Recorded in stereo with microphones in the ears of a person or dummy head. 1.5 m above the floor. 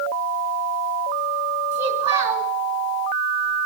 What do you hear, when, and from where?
1.7 s a child speaking: 10° right (ahead or behind), 2 m